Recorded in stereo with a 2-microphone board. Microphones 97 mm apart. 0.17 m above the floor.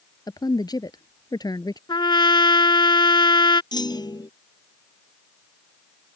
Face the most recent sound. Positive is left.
turn(degrees=45)  # may be behind; listen again after turning